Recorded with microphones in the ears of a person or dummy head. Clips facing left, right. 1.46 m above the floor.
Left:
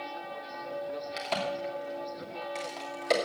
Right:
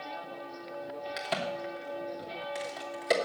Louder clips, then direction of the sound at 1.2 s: Left 1 dB; 10° right (ahead or behind).